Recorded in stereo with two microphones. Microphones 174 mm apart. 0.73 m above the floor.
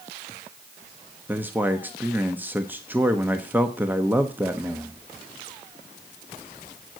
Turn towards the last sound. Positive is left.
turn(degrees=-10)  # may be behind; listen again after turning